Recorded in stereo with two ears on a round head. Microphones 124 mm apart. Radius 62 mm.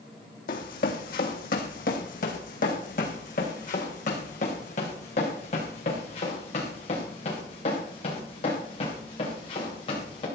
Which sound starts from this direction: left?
Running footsteps, at 0.5 s.